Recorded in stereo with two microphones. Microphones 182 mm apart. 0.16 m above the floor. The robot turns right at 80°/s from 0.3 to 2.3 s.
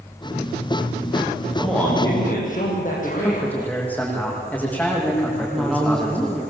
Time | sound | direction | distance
1.6 | a man speaking | 10° right | 8 m
3.0 | a man speaking | 10° left (ahead or behind) | 8.5 m
5.3 | a woman speaking | 5° left (ahead or behind) | 5 m